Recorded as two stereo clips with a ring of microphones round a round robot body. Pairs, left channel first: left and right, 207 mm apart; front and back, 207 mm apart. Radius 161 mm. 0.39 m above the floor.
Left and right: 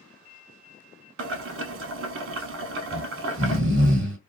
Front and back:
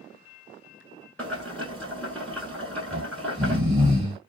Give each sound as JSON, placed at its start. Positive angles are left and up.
{"t": 1.2, "sound": "boiling", "azimuth_deg": -85, "distance_m": 0.6}
{"t": 2.9, "sound": "snoring", "azimuth_deg": -90, "distance_m": 1.2}